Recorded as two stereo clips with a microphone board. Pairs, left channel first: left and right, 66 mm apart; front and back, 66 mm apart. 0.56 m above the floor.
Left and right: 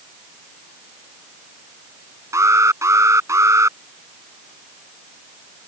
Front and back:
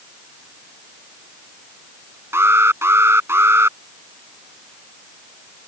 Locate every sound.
2.3 s an alarm: 130° right